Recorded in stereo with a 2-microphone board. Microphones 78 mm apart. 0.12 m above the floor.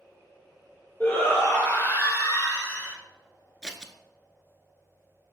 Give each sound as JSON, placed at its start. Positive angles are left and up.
{"t": 1.0, "sound": "a shout", "side_deg": 30, "distance_m": 2.5}
{"t": 3.6, "sound": "scissors", "side_deg": 10, "distance_m": 0.6}